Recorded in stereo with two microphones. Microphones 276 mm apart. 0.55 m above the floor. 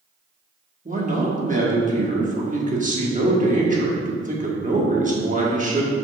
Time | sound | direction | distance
0.8 | a man speaking | 30° right (ahead or behind) | 1.2 m